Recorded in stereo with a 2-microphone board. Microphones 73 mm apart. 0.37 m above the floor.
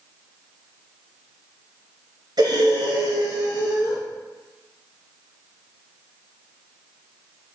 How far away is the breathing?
About 2.5 m.